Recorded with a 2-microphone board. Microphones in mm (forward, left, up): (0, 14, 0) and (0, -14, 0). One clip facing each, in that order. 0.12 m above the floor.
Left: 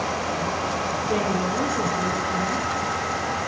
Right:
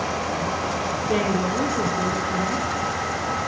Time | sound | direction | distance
1.1 | a woman speaking | 30° right (ahead or behind) | 1.4 m